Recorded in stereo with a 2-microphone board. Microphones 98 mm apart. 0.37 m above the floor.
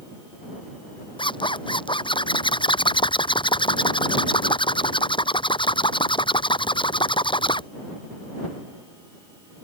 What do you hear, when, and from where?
1.2 s a zipper: 55° left (ahead or behind)